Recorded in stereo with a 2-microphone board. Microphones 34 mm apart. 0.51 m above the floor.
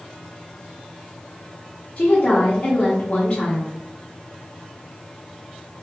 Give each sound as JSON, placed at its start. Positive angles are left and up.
{"t": 2.0, "sound": "a woman speaking", "side_deg": 30, "distance_m": 0.7}